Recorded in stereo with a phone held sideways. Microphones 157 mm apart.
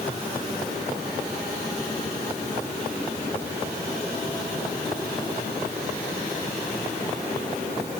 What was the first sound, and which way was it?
Only background noise.